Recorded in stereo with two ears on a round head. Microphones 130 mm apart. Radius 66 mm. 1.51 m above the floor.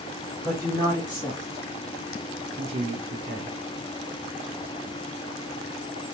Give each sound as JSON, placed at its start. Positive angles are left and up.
{"t": 0.4, "sound": "a woman speaking", "side_deg": 25, "distance_m": 1.3}